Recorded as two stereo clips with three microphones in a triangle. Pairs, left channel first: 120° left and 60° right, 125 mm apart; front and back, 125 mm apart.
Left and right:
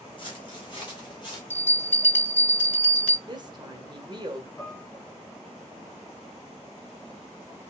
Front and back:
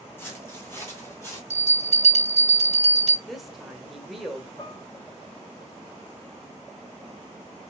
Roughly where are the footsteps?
Left.